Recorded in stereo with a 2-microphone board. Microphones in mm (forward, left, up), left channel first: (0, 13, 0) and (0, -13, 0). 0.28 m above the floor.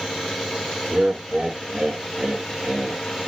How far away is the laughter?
About 4 m.